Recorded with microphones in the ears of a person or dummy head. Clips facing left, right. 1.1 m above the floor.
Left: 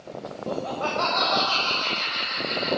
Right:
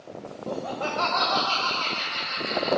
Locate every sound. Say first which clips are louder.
0.5 s laughter: left 2 dB; 15° left (ahead or behind), 0.5 m; by 2.7 s 60° right (ahead or behind), 2 m